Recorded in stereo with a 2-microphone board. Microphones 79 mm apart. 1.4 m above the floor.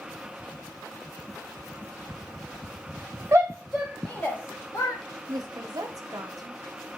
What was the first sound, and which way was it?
A shout, 35° right (ahead or behind).